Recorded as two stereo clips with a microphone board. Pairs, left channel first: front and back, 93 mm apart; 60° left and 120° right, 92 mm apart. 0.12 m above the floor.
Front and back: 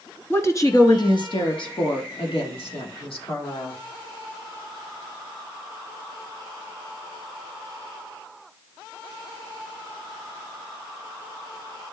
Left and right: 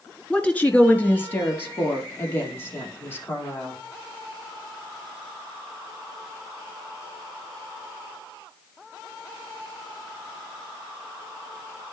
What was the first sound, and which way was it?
A woman speaking, 5° right.